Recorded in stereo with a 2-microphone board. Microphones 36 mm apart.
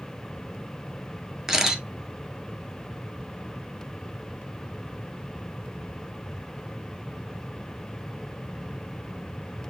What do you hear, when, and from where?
1.5 s a camera shutter: 15° right (ahead or behind), 1.0 m